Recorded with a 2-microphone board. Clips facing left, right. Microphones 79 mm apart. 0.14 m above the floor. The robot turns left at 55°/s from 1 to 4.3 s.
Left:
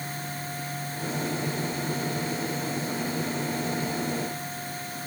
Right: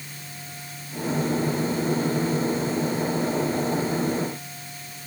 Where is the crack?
I don't hear a crack.